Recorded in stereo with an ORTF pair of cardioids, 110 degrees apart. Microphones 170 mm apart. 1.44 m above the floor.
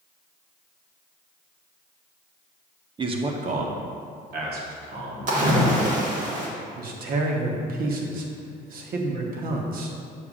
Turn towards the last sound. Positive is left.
turn(degrees=-60)